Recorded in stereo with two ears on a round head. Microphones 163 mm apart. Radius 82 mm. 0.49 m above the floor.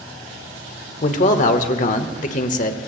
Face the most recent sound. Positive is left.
turn(degrees=45)  # may be behind; listen again after turning